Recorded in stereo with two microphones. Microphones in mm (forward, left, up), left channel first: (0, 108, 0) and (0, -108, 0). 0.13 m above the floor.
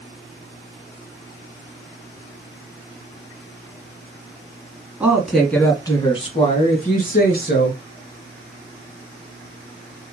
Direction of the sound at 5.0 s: 5° right (ahead or behind).